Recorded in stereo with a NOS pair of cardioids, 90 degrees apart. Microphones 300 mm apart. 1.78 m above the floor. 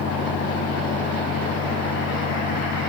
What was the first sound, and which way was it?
A fan, 55° left.